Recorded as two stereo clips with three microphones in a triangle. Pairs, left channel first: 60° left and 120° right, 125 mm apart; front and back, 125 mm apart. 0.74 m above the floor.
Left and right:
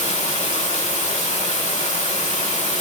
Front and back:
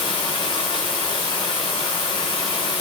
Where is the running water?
50° left, 3 m.